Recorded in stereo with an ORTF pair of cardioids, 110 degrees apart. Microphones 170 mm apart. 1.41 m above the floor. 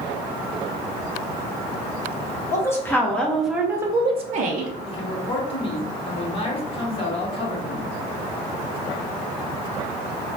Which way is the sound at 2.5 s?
15° left.